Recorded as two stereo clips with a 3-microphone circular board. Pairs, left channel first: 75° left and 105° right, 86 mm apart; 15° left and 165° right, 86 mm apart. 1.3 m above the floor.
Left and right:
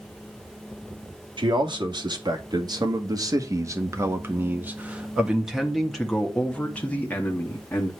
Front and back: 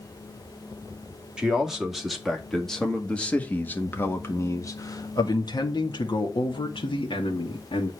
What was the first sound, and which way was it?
A man speaking, 85° right.